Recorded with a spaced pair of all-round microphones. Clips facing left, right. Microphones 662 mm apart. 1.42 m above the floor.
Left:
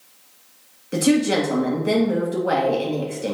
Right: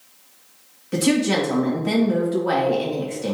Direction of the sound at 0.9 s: 30° right (ahead or behind).